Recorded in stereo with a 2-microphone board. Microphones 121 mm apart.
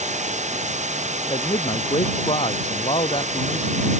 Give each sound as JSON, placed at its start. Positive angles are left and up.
{"t": 0.0, "sound": "running water", "side_deg": -75}
{"t": 1.3, "sound": "a man speaking", "side_deg": 50}